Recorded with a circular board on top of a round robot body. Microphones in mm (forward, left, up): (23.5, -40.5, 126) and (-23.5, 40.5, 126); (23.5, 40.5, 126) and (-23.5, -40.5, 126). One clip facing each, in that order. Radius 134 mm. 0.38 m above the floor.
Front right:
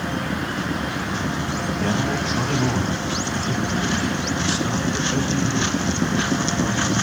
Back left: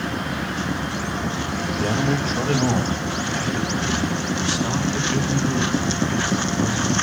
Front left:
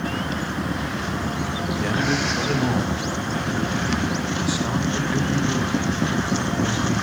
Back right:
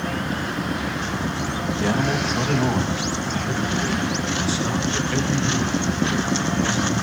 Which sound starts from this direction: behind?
A man speaking, at 1.8 s.